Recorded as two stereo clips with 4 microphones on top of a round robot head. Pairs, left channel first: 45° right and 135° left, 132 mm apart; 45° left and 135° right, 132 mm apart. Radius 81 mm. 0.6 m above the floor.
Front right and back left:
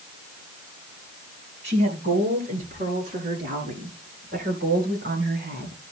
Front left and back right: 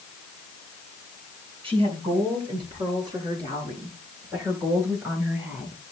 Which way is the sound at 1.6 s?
175° left.